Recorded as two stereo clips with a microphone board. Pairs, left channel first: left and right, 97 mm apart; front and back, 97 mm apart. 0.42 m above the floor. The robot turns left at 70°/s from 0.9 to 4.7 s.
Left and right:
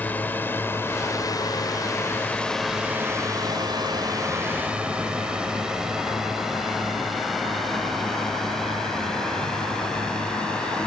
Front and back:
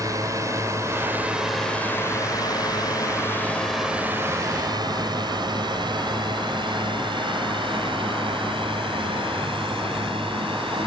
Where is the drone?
155° left; by 10.9 s 170° left.